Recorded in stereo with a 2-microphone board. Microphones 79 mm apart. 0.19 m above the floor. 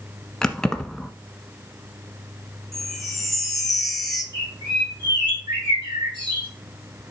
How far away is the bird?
About 6.5 m.